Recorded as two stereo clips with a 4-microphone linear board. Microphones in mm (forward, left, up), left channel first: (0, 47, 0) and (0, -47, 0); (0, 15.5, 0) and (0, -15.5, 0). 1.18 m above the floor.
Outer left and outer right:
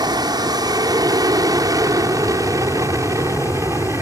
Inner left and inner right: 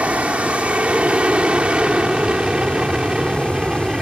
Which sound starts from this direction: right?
An aircraft, at 0.0 s.